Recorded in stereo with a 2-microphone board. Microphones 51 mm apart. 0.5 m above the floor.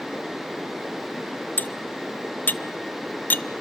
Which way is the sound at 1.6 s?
35° left (ahead or behind).